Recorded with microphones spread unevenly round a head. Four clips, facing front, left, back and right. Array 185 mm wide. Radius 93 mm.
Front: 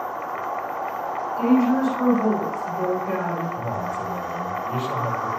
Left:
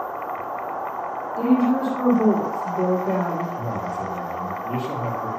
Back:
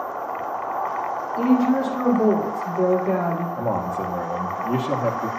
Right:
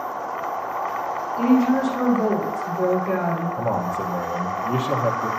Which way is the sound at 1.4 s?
150° left.